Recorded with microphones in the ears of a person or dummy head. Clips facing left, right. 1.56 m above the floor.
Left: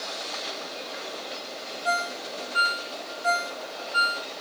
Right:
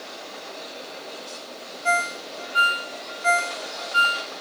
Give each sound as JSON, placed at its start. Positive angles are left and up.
{"t": 1.9, "sound": "a ringtone", "side_deg": -35, "distance_m": 1.3}